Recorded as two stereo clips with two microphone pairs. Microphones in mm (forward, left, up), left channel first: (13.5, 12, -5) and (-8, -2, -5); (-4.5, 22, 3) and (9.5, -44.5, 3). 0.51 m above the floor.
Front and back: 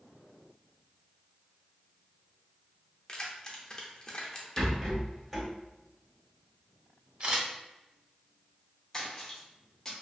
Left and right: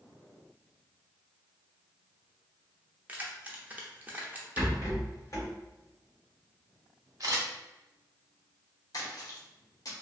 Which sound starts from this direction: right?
A camera shutter, at 7.2 s.